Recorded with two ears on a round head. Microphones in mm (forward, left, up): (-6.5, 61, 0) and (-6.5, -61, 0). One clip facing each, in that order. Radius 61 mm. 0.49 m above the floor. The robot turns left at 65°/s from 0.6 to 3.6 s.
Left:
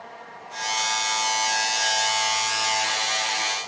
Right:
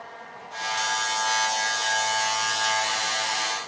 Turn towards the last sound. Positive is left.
No sound to turn to.